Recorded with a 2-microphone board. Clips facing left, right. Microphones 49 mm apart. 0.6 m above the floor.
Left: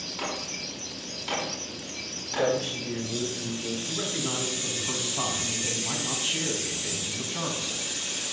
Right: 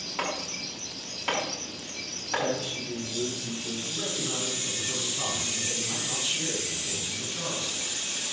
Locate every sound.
0.2 s chopping: 30° right (ahead or behind), 5.5 m
2.4 s a man speaking: 60° left (ahead or behind), 2.5 m
3.9 s a man speaking: 55° left (ahead or behind), 4 m